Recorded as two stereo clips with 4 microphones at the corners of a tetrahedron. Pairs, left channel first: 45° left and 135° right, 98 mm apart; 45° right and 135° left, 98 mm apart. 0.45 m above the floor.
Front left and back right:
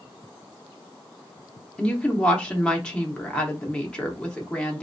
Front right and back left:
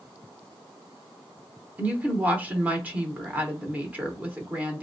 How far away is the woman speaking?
About 0.8 m.